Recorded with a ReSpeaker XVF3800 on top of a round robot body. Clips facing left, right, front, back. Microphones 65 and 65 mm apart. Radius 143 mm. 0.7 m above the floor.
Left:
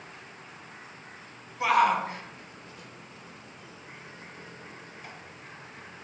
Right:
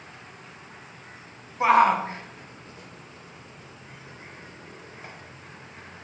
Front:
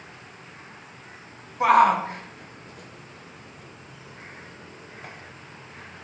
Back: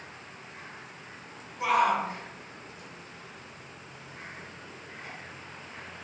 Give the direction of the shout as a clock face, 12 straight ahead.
1 o'clock.